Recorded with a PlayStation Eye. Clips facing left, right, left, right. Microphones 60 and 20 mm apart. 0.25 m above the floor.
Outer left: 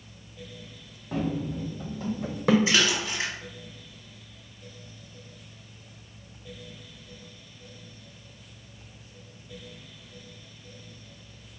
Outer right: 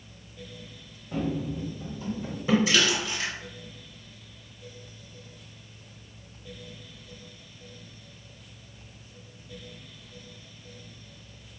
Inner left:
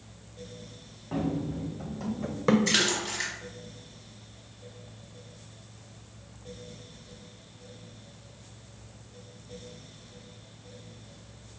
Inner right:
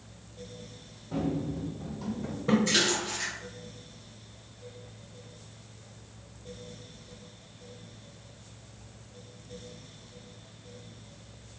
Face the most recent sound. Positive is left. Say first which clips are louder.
# even, inner left 1 dB
turn(degrees=30)  # may be behind; listen again after turning